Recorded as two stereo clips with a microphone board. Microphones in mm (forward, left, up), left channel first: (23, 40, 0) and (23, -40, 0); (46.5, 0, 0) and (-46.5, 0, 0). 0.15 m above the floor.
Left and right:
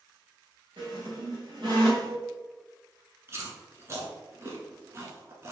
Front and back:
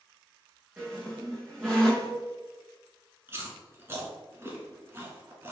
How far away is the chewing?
About 1.0 m.